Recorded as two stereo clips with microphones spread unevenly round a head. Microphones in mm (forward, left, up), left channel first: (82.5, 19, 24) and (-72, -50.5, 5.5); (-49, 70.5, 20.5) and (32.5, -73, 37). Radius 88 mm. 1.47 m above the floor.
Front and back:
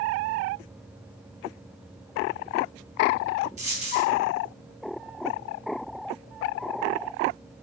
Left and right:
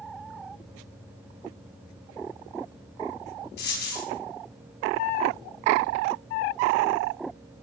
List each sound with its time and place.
3.6 s a dropped coin: 150° left, 4.5 m